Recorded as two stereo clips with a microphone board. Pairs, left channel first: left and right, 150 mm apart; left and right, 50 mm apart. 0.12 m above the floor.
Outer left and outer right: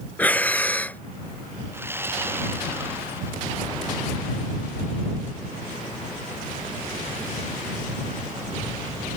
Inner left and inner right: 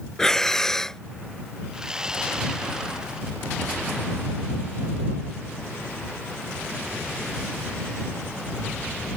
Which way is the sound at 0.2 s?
10° left (ahead or behind).